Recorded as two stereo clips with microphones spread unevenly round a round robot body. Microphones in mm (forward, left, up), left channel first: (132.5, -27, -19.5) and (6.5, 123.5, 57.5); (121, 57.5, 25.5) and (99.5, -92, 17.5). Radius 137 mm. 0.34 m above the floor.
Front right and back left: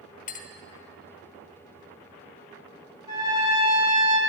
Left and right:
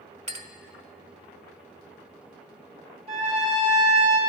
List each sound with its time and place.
0.3 s a clink: 60° right, 0.8 m
3.1 s a trumpet: 140° right, 2.5 m